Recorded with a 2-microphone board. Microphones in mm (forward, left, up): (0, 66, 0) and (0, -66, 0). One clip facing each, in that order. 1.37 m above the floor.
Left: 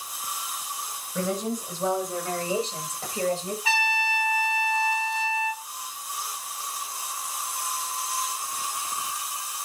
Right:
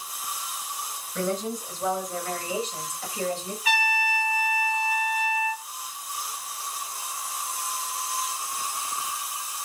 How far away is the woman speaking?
About 8 m.